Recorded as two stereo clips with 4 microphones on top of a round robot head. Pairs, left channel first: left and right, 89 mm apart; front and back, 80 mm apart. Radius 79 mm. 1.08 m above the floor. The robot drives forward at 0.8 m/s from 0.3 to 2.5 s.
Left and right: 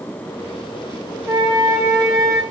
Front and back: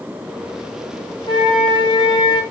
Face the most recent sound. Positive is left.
turn(degrees=-35)